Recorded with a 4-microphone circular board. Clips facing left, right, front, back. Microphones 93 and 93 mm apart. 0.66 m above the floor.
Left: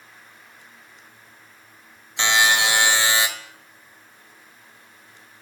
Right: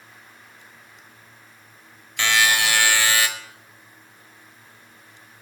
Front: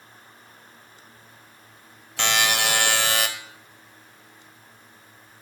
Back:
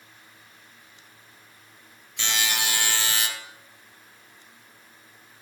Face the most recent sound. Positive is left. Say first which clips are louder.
# left 1 dB, front 6 dB
turn(degrees=25)